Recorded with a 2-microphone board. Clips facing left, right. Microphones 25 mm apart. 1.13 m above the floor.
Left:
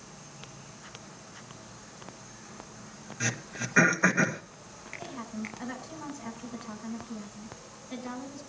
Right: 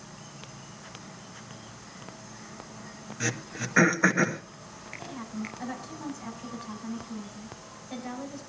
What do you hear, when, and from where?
0.0 s an insect: 55° right (ahead or behind), 6.5 m
3.2 s throat clearing: 10° right (ahead or behind), 1.5 m
5.0 s a woman speaking: 10° right (ahead or behind), 8.5 m